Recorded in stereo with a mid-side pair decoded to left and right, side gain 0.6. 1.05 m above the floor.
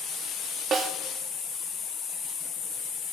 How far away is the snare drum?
About 2.5 m.